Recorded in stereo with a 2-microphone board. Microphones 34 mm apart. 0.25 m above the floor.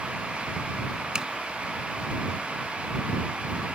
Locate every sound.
1.1 s a zipper: 25° right (ahead or behind)